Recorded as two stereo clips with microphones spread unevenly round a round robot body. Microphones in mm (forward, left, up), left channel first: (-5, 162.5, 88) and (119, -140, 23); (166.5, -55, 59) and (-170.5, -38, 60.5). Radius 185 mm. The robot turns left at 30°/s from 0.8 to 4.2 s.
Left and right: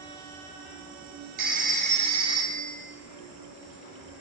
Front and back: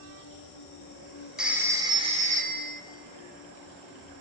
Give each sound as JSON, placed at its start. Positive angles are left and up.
{"t": 0.0, "sound": "an insect", "azimuth_deg": -45, "distance_m": 3.5}
{"t": 1.4, "sound": "a phone ringing", "azimuth_deg": -95, "distance_m": 0.8}